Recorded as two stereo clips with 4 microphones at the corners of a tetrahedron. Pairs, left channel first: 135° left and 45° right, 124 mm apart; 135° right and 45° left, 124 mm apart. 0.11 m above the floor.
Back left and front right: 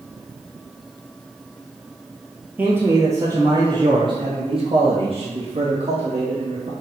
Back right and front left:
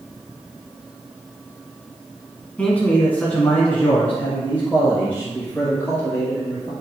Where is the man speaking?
85° right, 1.2 m; by 6.7 s 55° right, 2.5 m.